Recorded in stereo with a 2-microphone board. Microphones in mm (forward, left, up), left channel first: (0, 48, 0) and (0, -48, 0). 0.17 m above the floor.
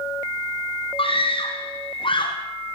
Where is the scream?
70° left (ahead or behind), 7 m; by 2.4 s 60° left (ahead or behind), 6.5 m.